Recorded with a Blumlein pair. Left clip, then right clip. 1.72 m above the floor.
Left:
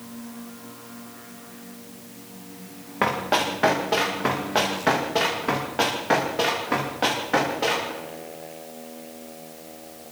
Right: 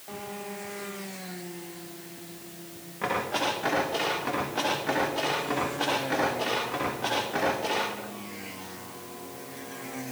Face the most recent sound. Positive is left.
turn(degrees=55)